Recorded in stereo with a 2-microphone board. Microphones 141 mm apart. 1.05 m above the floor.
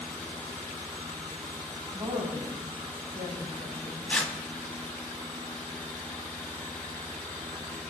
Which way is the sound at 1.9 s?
45° right (ahead or behind).